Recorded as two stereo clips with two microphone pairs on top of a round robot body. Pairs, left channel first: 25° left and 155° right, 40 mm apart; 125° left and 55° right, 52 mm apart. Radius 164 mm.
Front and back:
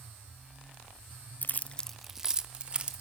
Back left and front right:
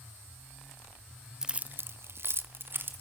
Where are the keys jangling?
25° left, 0.7 m; by 3.0 s 100° right, 1.7 m.